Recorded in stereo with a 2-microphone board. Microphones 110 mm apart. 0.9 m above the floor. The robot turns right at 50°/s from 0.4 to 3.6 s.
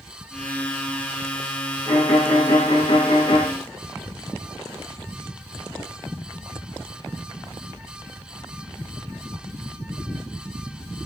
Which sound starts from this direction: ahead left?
A violin, at 1.9 s.